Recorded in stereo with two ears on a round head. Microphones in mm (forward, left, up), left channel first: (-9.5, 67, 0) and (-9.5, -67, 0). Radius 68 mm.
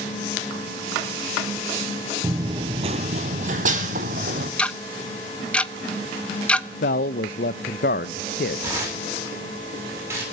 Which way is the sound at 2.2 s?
20° right (ahead or behind).